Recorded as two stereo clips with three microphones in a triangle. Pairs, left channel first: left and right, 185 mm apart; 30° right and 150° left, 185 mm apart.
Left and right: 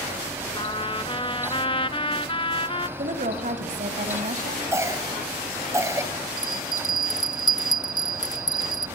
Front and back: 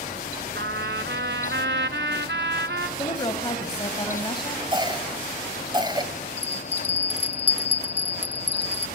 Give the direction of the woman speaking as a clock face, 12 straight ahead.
3 o'clock.